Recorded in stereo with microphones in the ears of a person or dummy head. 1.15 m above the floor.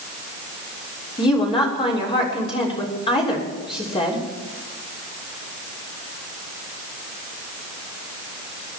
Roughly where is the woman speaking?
Left.